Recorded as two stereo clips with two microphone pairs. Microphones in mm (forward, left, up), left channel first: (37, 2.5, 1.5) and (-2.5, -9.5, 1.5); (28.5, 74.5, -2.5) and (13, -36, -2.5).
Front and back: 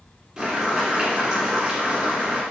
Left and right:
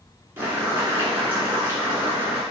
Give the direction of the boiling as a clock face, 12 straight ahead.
4 o'clock.